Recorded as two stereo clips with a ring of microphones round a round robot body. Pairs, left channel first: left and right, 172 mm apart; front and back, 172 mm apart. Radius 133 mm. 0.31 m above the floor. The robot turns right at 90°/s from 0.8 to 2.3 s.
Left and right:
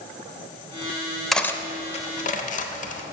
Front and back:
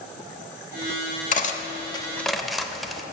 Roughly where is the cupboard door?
No cupboard door in this recording.